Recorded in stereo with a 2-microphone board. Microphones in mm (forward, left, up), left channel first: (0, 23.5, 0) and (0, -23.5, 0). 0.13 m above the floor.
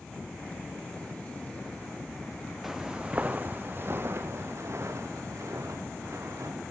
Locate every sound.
2.6 s footsteps: 5° right (ahead or behind), 1.5 m; by 6.7 s 75° right (ahead or behind), 5 m